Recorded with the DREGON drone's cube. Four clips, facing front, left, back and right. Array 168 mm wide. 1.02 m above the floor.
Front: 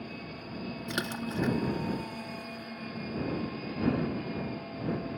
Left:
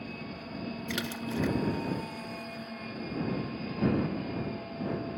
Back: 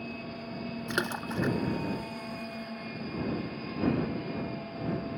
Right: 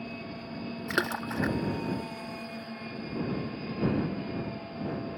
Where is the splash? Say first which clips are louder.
Right 6 dB, back 2 dB; 115° right.